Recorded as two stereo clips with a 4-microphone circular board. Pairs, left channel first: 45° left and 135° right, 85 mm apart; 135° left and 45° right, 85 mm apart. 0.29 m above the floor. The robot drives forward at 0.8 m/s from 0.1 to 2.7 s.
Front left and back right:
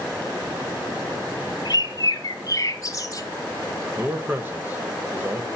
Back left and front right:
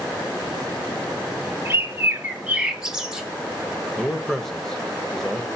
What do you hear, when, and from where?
1.6 s a bird: 15° left, 1.6 m; by 3.3 s 30° left, 0.9 m
4.0 s a man speaking: 145° right, 1.0 m